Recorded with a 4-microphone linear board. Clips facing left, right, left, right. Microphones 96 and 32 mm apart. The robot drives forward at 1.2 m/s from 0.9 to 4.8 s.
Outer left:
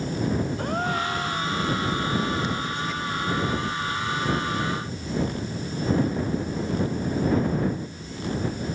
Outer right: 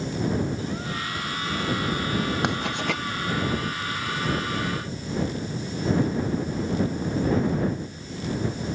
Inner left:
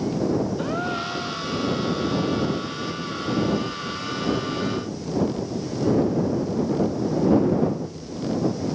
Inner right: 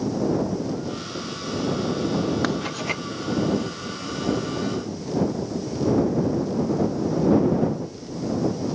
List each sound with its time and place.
0.6 s a gasp: 60° left (ahead or behind); by 1.6 s 65° left (ahead or behind)
2.4 s writing: 75° right (ahead or behind)